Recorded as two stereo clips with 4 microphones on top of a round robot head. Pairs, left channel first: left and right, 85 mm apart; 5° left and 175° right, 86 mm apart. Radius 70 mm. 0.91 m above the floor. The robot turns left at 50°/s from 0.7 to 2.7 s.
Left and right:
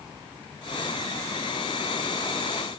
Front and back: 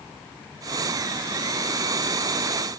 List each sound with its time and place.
Only background noise.